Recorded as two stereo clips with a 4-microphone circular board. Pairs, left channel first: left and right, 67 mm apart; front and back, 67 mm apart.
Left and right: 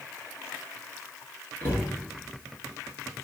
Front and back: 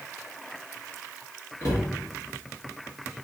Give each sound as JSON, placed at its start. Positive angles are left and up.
{"t": 1.6, "sound": "a cupboard door", "azimuth_deg": 40, "distance_m": 1.9}